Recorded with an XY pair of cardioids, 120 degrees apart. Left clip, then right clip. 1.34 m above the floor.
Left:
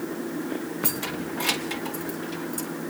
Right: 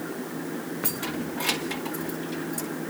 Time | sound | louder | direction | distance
0.8 | keys jangling | even | 20° left | 0.7 m